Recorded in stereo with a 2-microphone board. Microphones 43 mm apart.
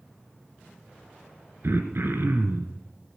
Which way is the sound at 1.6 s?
60° right (ahead or behind).